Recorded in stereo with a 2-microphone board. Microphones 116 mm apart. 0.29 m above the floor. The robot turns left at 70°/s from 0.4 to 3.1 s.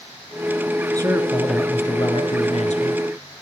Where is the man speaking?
145° right, 3.5 m; by 3.0 s 70° left, 3.5 m.